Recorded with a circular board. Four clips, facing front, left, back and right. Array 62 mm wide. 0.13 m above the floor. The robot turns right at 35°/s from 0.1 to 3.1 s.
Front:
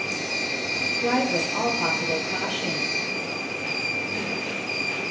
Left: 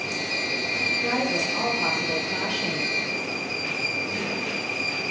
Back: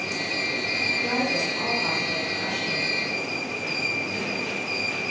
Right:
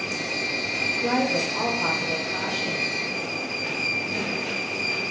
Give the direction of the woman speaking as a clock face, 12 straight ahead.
12 o'clock.